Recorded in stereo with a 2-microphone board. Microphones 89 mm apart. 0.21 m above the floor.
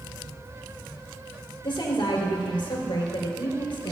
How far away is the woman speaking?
About 3.5 m.